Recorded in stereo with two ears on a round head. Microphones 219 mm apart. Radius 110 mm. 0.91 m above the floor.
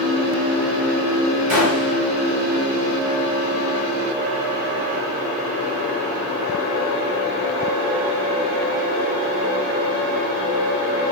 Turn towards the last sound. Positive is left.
turn(degrees=-60)  # may be behind; listen again after turning